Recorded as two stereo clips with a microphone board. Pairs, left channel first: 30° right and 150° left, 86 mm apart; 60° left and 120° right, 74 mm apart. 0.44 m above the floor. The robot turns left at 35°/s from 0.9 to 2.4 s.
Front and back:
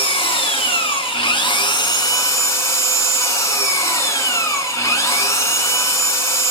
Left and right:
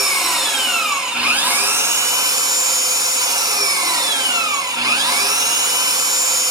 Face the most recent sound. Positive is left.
turn(degrees=-85)